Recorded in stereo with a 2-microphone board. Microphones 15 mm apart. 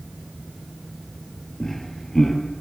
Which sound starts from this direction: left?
Laughter, at 1.6 s.